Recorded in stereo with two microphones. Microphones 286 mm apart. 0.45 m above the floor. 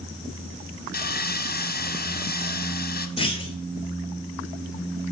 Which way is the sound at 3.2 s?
20° left (ahead or behind).